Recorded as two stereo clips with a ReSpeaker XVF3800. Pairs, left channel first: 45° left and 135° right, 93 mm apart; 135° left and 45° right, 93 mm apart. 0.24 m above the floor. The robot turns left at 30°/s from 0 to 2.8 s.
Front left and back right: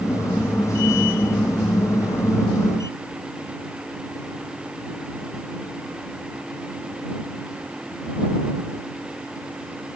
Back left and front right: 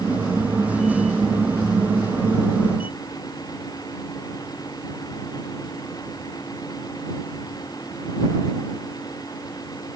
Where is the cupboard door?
I don't hear a cupboard door.